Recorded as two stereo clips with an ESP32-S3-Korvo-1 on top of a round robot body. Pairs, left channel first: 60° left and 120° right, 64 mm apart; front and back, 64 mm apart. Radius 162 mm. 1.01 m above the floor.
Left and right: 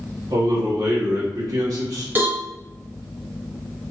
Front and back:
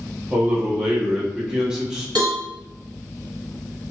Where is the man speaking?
100° right, 1.8 m.